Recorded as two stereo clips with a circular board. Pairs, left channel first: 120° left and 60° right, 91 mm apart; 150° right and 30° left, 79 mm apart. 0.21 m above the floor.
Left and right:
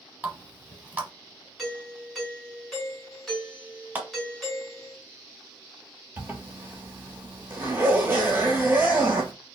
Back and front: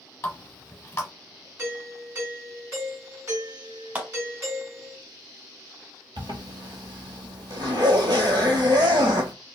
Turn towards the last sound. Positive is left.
turn(degrees=5)